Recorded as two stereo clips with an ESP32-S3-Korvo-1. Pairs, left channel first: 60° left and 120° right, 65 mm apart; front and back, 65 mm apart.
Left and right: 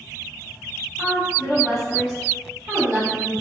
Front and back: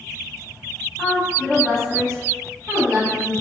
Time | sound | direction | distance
1.0 | a woman speaking | 120° right | 1.2 m